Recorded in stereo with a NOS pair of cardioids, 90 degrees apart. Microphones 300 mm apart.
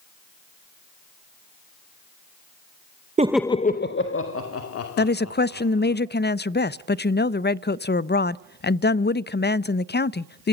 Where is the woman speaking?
35° left, 0.5 m.